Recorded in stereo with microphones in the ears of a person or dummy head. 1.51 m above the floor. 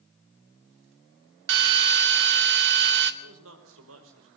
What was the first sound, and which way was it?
A drill, 50° right (ahead or behind).